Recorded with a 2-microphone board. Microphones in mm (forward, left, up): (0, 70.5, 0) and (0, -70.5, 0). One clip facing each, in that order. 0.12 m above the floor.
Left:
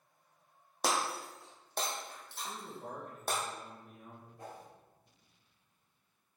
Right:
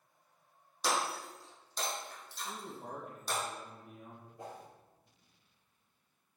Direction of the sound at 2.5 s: 5° right (ahead or behind).